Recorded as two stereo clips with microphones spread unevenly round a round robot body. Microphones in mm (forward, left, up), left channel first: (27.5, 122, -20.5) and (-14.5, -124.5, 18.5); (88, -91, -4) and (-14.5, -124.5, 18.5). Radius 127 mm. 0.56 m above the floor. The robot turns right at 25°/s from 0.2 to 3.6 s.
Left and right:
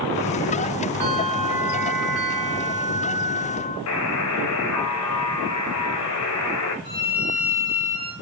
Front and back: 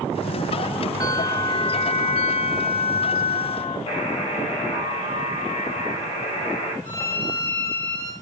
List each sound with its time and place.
1.0 s a bell: 35° right, 8.5 m; by 3.8 s 30° left, 8.5 m
3.9 s a buzzer: 60° left, 3 m
6.8 s a violin: 30° left, 8.5 m